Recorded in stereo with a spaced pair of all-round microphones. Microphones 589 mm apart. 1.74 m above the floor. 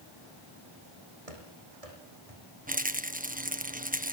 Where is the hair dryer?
I don't hear a hair dryer.